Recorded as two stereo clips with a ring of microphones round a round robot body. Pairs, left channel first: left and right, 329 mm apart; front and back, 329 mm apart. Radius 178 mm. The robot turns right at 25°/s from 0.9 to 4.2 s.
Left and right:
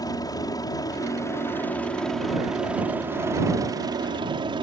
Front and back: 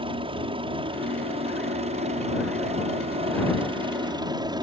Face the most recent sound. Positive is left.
turn(degrees=-135)